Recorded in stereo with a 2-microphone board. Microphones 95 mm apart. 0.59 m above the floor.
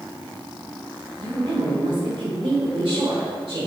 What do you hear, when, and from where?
1.2 s a woman speaking: 65° right (ahead or behind), 2 m